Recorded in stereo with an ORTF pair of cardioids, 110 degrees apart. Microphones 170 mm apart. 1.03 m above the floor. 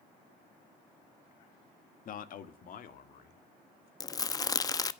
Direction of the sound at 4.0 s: 20° left.